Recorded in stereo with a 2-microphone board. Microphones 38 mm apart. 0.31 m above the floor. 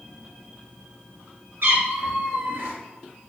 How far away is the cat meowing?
About 2 m.